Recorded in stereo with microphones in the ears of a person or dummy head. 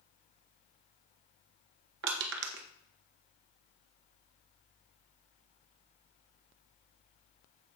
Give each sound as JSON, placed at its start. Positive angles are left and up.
{"t": 2.0, "sound": "crushing", "side_deg": -65, "distance_m": 1.2}